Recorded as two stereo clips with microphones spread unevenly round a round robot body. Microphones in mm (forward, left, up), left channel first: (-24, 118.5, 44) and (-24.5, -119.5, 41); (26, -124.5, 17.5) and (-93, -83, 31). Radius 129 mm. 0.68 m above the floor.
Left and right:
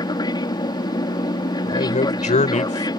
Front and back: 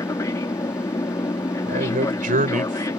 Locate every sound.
0.0 s an aircraft: 25° left
1.7 s a man speaking: 150° left